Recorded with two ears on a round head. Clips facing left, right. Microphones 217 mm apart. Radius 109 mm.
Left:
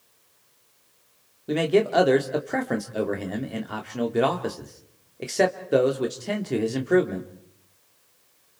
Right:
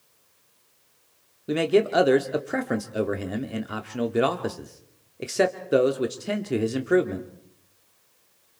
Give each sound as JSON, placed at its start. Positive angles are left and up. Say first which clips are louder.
{"t": 1.5, "sound": "a man speaking", "louder": "even", "side_deg": -5, "distance_m": 1.9}